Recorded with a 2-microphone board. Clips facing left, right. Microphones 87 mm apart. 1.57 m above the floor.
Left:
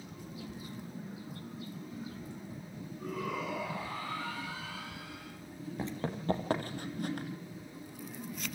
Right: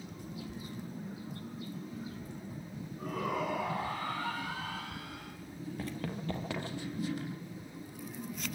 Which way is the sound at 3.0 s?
50° right (ahead or behind).